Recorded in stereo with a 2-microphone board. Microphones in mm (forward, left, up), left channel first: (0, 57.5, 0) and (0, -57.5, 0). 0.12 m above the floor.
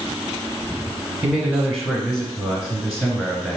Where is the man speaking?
Centre (ahead or behind), 1.1 m.